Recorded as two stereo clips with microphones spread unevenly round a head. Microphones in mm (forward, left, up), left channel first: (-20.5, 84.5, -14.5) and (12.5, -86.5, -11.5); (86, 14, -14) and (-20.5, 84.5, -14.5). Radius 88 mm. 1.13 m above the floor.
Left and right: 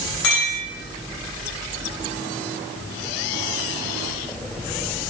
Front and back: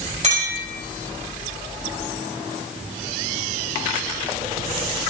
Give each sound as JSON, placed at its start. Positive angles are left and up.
{"t": 0.2, "sound": "a clink", "azimuth_deg": 115, "distance_m": 2.5}